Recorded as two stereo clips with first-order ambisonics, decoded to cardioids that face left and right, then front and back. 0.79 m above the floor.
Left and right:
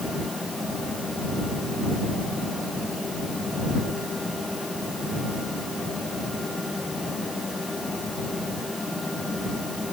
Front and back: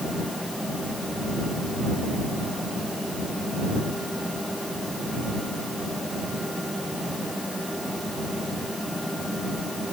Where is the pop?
No pop in this recording.